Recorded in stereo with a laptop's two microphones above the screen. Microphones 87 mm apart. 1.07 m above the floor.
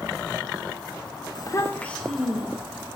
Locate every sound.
1.4 s a child speaking: 55° left (ahead or behind), 0.6 m; by 2.9 s 20° right (ahead or behind), 1.5 m